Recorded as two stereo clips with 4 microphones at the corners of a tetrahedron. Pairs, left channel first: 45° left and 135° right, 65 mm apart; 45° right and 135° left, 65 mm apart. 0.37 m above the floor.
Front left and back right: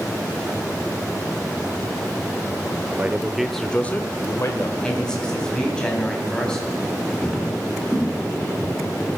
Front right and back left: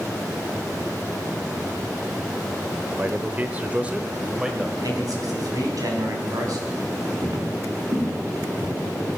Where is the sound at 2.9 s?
Straight behind, 1.1 m; by 4.7 s 55° left, 1.3 m.